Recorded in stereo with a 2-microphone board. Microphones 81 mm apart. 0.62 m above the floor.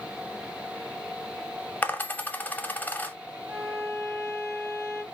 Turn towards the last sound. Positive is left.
turn(degrees=-45)  # may be behind; listen again after turning